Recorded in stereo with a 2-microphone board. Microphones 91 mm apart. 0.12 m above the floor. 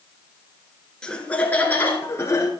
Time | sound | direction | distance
1.0 | laughter | 10° left (ahead or behind) | 1.4 m